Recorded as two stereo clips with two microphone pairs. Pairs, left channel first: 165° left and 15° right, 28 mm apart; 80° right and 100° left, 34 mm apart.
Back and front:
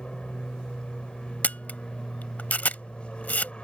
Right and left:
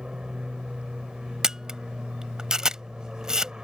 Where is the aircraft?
155° left.